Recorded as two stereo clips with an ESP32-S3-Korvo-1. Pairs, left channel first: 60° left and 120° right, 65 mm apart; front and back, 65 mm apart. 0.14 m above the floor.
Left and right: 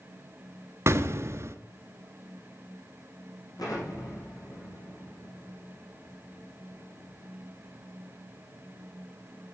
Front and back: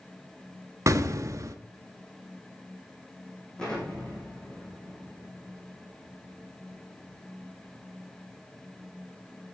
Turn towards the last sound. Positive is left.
turn(degrees=80)